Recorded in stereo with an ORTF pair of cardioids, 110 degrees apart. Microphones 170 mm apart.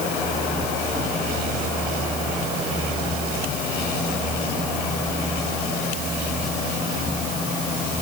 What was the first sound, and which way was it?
Only background noise.